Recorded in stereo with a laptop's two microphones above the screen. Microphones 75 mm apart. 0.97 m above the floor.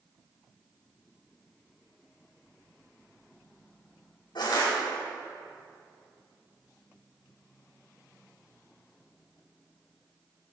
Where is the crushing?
75° left (ahead or behind), 3 m.